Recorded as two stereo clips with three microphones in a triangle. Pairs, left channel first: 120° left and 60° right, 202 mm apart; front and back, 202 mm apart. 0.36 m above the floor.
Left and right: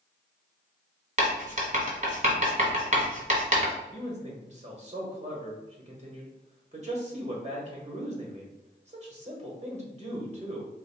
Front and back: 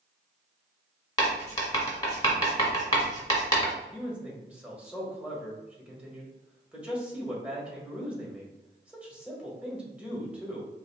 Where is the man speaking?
100° right, 1.1 m.